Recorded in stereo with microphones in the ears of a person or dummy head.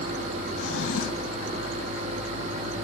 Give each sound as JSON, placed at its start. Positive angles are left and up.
{"t": 0.6, "sound": "a drawer", "side_deg": 70, "distance_m": 3.0}